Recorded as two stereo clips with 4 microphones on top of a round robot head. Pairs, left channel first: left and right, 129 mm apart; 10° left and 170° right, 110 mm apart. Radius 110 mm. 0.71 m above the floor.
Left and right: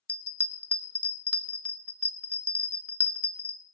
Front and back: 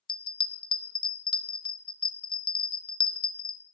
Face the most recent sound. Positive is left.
turn(degrees=15)